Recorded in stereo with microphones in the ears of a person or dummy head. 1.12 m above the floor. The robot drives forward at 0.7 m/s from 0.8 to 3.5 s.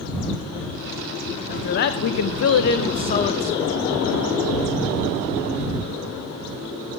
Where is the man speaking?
40° left (ahead or behind), 0.8 m; by 3.8 s 30° left (ahead or behind), 1.0 m.